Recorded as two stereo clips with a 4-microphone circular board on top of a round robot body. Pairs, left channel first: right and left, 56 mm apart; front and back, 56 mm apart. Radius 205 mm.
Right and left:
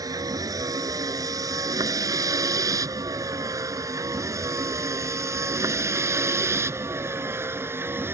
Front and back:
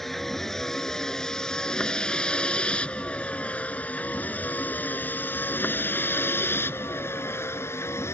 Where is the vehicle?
85° left; by 8.2 s 40° left.